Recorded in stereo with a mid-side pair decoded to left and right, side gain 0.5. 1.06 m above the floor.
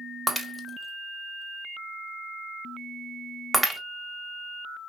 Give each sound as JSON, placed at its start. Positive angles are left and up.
{"t": 0.3, "sound": "breaking glass", "azimuth_deg": -5, "distance_m": 1.1}